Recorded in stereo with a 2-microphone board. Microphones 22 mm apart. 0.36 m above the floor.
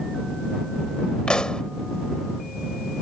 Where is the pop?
50° left (ahead or behind).